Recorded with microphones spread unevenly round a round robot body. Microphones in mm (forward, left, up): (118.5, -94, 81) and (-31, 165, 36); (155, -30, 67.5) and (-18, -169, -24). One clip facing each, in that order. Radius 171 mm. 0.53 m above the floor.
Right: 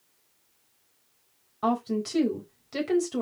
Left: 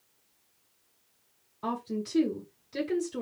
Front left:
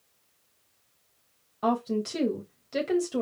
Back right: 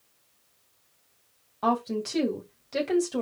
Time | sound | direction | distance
1.6 | a woman speaking | 50° right | 3 m